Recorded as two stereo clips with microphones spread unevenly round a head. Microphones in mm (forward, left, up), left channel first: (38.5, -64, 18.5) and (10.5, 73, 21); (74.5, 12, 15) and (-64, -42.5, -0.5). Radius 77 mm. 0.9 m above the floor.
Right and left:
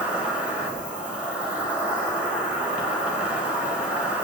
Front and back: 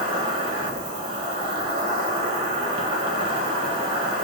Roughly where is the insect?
Behind.